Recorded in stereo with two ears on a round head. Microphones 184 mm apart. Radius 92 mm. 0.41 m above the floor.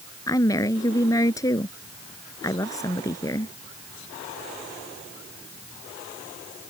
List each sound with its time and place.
0.3 s a woman speaking: 20° left (ahead or behind)